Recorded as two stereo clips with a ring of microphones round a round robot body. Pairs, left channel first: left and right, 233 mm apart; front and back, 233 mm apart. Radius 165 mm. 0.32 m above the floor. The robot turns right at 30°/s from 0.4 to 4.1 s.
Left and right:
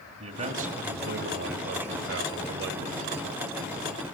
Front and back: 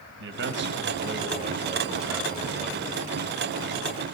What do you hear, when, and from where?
0.2 s a man speaking: 150° right, 1.7 m; by 3.0 s 75° right, 1.7 m